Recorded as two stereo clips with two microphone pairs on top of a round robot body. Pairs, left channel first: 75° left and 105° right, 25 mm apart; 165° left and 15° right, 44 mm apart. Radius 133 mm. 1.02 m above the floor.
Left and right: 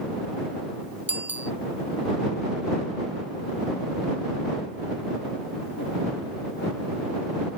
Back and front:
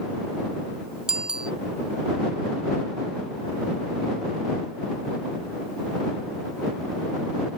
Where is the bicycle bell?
95° right.